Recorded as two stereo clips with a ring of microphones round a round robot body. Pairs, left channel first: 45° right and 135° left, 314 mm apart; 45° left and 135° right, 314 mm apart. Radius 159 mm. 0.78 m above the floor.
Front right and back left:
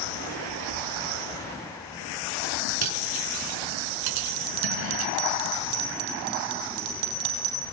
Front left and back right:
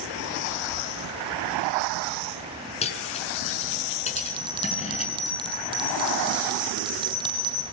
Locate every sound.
2.8 s cutlery clinking: 115° left, 6.5 m
4.2 s a bell: 150° left, 4 m